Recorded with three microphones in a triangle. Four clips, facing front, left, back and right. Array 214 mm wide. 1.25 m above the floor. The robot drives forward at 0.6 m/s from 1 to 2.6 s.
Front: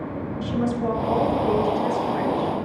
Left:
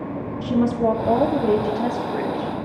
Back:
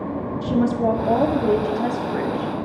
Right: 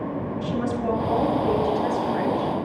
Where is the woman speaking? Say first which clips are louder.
Left 7 dB, back 5 dB; 130° left, 2.5 m; by 2.5 s 140° left, 3 m.